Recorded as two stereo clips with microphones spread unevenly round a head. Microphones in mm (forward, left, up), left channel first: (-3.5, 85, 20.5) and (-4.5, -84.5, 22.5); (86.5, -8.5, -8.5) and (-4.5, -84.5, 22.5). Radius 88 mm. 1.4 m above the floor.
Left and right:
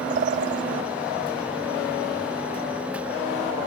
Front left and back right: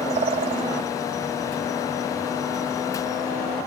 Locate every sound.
0.1 s a bird: 130° right